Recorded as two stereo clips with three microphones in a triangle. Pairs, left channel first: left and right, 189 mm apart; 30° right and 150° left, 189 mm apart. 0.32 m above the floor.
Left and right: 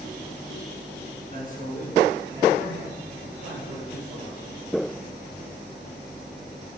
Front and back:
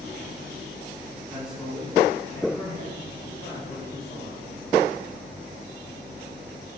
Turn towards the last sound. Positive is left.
turn(degrees=-90)